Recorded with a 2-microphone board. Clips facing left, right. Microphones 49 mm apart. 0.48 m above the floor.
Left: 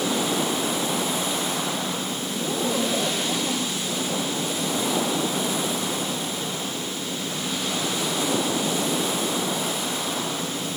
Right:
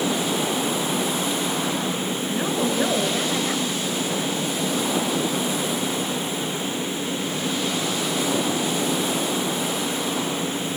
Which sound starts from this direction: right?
A woman speaking, at 2.3 s.